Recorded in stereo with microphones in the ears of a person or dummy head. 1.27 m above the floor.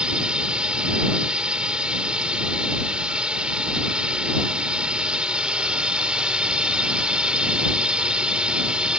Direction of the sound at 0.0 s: 10° right (ahead or behind).